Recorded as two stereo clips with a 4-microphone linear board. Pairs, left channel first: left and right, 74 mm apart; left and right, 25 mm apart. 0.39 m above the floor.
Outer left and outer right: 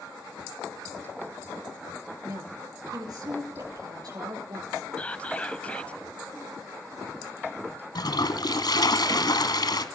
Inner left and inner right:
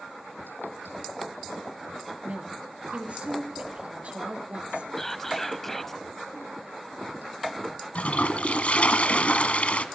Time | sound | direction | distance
2.2 | a woman speaking | 60° right (ahead or behind) | 7.5 m
5.0 | whispering | 15° left (ahead or behind) | 2.0 m
8.0 | a toilet flushing | 65° left (ahead or behind) | 1.8 m